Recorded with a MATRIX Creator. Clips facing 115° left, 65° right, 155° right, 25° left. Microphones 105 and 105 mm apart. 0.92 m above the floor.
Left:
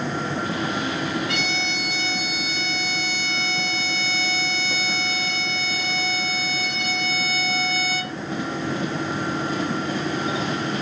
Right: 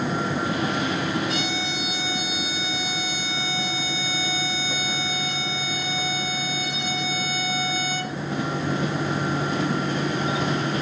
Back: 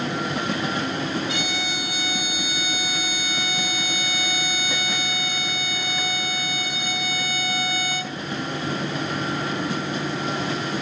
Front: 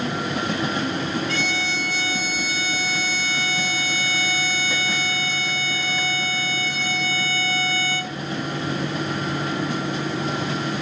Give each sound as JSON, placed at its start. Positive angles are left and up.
{"t": 1.3, "sound": "a violin", "azimuth_deg": 125, "distance_m": 2.5}